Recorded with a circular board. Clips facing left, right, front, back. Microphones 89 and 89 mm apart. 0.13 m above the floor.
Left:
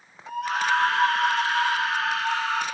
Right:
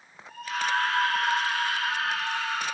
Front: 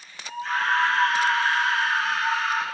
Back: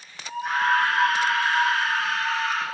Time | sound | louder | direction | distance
0.3 | a scream | left 5 dB, back 2 dB | 110° left | 8.5 m